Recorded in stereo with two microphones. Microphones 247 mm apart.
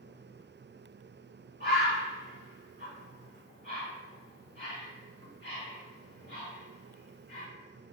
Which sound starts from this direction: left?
A bird, at 1.6 s.